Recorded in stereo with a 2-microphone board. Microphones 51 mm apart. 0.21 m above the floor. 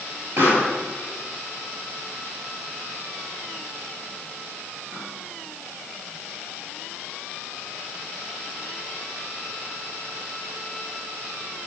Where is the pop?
45° right (ahead or behind), 4.5 m.